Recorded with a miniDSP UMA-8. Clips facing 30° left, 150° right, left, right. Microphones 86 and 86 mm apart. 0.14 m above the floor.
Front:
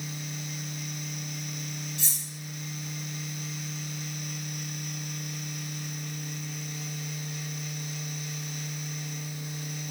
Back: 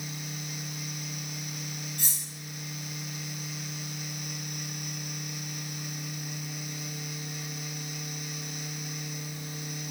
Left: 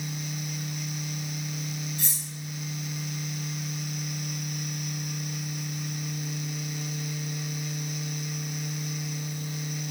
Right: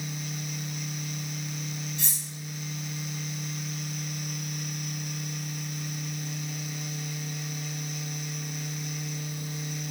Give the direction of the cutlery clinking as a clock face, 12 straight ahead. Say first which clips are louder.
Front 1 dB, left 1 dB; 4 o'clock.